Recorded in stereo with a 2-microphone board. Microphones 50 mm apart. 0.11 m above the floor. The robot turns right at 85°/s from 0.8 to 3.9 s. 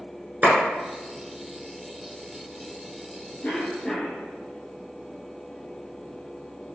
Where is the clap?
30° right (ahead or behind), 1.2 m.